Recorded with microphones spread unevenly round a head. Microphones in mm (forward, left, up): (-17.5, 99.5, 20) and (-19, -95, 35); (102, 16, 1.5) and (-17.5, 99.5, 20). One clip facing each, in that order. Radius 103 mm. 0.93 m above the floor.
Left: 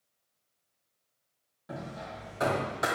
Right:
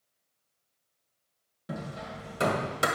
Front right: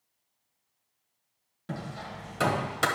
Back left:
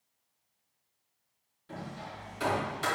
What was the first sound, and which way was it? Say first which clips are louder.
Hammering: right 2 dB, front right 4 dB; 35° right.